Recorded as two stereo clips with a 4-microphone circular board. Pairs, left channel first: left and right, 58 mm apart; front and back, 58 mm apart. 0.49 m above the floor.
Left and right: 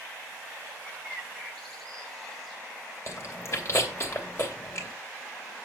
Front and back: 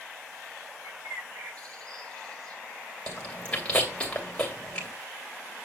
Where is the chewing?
70° left, 2.5 m.